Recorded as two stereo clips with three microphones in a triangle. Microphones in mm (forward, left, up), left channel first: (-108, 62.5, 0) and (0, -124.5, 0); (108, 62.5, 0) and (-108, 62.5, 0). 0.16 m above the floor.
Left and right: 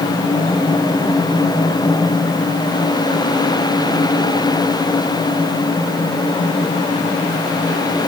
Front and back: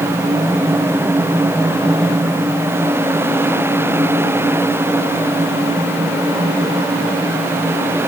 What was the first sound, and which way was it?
Only background noise.